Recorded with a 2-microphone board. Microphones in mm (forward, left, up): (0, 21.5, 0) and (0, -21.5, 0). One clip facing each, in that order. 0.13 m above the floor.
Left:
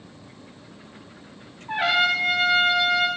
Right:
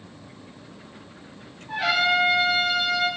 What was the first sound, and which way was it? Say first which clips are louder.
A trumpet: left 1 dB; 35° left (ahead or behind).